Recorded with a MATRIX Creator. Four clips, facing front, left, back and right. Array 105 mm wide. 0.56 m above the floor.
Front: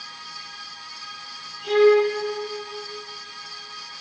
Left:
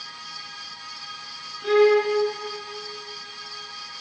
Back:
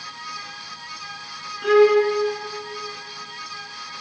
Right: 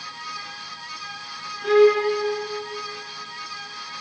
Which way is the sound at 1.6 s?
Straight behind.